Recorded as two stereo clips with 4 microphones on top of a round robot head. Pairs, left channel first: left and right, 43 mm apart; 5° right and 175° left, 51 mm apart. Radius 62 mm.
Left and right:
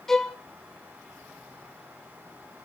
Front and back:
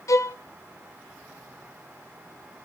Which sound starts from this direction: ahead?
A violin, at 0.1 s.